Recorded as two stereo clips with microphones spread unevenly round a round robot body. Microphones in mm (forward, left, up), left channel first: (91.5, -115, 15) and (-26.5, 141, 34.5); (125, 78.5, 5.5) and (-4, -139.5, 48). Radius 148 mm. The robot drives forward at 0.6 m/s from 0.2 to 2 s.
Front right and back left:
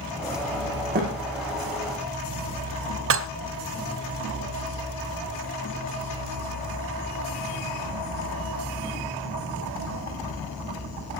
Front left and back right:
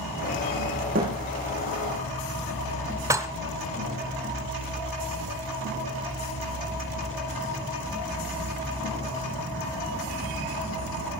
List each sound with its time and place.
0.9 s a thud: 175° left, 8 m
3.1 s dishes clattering: 155° left, 0.7 m